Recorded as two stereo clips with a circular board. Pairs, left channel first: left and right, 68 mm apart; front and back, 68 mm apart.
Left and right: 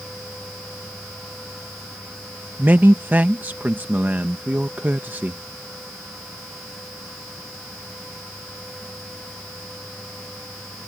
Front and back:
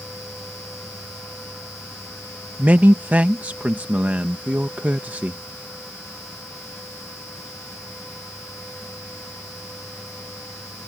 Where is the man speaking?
130° right.